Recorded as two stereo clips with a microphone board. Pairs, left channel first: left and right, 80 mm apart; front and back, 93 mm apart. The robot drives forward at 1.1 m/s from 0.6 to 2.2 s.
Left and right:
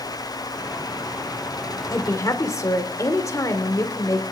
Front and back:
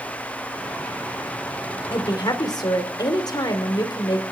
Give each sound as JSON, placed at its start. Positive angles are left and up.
{"t": 1.9, "sound": "a woman speaking", "azimuth_deg": 35, "distance_m": 2.5}